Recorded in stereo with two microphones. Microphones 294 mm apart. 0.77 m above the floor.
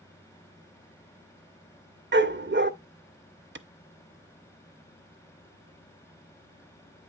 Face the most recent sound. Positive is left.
turn(degrees=-40)  # may be behind; listen again after turning